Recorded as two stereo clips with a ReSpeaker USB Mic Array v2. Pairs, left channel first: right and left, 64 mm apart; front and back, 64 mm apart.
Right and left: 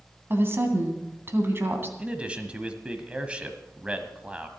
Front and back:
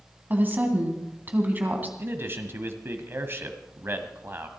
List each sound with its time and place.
0.3 s a woman speaking: 130° left, 2.5 m
2.0 s a man speaking: 155° left, 1.3 m